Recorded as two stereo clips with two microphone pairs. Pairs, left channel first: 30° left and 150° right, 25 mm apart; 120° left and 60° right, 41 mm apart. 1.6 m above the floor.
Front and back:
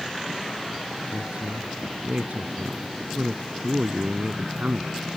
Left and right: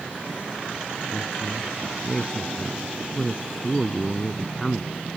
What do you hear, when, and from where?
1.1 s a woman speaking: 160° right